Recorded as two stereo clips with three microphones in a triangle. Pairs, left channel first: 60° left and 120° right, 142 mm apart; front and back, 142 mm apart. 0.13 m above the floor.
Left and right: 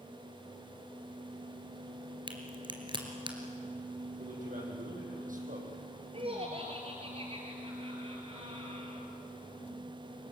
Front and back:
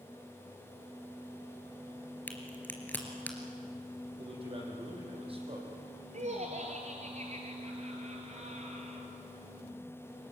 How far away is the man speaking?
About 6.5 m.